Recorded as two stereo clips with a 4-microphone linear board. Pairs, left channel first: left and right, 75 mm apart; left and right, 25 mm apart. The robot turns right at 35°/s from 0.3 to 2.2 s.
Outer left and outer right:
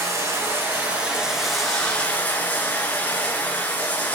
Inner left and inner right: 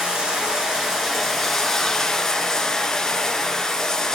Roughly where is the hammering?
I don't hear hammering.